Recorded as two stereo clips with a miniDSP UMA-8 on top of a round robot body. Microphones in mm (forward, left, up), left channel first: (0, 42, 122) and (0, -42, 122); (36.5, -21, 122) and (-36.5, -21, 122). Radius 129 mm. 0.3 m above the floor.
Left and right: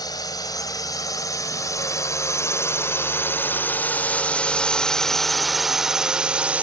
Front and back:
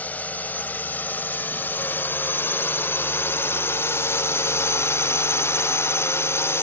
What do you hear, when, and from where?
0.0 s a drone: 65° left; by 6.6 s 25° right